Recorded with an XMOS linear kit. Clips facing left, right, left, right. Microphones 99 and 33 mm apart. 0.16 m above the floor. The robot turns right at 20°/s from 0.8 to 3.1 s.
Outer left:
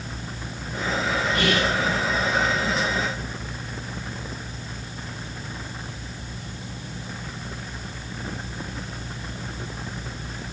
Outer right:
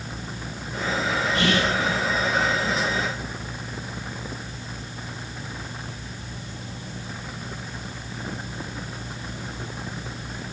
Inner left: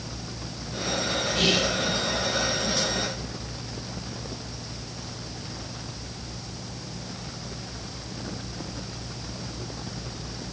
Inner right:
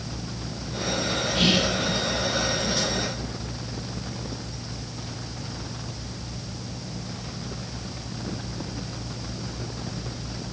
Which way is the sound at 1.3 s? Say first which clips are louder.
Outer right 1 dB, inner right 2 dB; 30° right (ahead or behind).